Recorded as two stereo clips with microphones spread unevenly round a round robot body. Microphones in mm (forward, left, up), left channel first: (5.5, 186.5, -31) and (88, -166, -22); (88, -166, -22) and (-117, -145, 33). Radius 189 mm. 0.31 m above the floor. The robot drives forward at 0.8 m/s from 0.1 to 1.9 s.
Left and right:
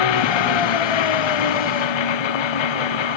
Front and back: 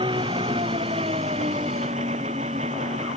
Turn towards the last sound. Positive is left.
turn(degrees=100)